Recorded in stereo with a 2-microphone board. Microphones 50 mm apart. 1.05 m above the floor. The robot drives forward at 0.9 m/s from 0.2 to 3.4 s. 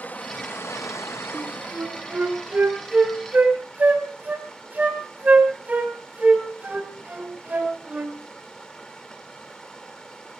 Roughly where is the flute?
Right.